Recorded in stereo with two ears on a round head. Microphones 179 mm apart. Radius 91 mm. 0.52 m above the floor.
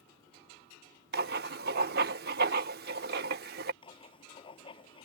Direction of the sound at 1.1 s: 50° right (ahead or behind).